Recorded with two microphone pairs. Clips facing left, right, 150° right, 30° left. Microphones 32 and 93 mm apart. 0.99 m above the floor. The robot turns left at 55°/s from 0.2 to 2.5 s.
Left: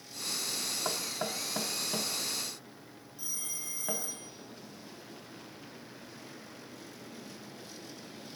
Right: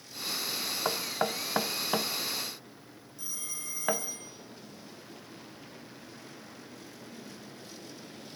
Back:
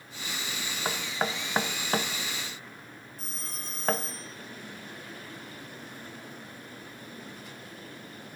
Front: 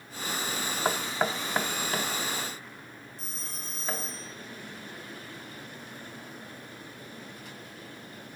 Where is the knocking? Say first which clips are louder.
Right 7 dB, front 2 dB; 35° right, 0.6 m; by 4.0 s 125° right, 0.6 m.